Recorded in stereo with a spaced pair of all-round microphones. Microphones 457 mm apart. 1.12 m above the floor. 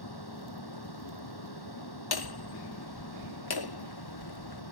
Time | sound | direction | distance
0.0 | a fan | 60° left (ahead or behind) | ?
2.1 | hammering | 60° left (ahead or behind) | ?